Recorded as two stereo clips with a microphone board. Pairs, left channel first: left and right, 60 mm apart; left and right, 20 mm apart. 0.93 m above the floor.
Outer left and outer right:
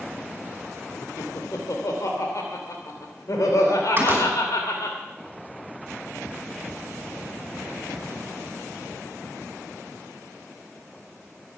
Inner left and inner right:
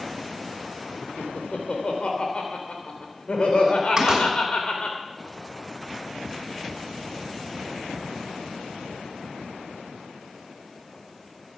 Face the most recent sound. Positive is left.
turn(degrees=-35)  # may be behind; listen again after turning